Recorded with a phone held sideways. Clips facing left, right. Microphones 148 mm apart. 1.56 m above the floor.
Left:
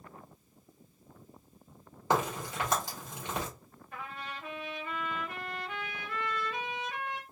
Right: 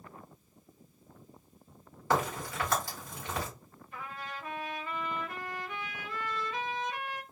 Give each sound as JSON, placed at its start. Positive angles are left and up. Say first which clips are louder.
{"t": 2.1, "sound": "a crack", "louder": "even", "side_deg": 20, "distance_m": 1.6}
{"t": 3.9, "sound": "a trumpet", "louder": "even", "side_deg": 65, "distance_m": 1.2}